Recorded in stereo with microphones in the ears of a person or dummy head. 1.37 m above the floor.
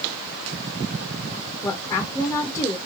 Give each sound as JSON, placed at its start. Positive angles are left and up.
{"t": 1.6, "sound": "a woman speaking", "side_deg": 15, "distance_m": 0.8}